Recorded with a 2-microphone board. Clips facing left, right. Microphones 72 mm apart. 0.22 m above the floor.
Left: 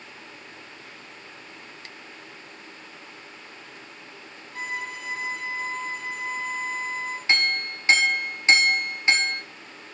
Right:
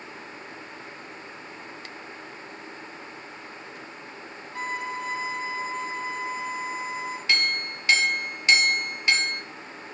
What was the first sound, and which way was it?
A violin, 25° right (ahead or behind).